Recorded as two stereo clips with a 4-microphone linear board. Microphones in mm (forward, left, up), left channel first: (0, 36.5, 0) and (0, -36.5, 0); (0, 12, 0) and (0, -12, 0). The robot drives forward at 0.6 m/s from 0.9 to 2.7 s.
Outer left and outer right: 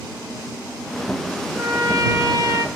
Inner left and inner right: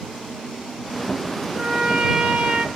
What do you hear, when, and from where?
1.6 s a trumpet: 40° right (ahead or behind), 1.1 m; by 2.7 s 60° right (ahead or behind), 0.8 m